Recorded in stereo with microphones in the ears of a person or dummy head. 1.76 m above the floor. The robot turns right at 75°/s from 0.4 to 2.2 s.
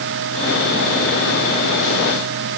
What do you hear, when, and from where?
Only background noise.